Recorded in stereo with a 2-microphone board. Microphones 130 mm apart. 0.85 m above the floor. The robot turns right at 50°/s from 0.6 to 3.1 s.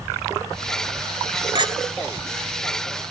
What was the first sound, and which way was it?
A clink, 40° right (ahead or behind).